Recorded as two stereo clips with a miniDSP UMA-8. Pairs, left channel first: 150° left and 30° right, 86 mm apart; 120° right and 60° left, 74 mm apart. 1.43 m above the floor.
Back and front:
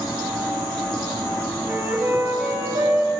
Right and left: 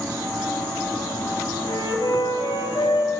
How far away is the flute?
About 5 m.